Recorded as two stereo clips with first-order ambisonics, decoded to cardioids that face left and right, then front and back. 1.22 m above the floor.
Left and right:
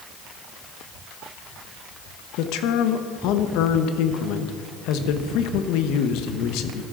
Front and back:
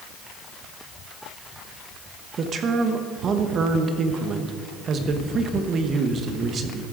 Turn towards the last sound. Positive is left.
turn(degrees=120)